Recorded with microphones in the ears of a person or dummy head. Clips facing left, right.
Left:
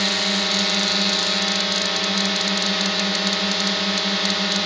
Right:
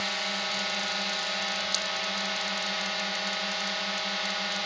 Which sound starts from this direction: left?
A drone, at 0.0 s.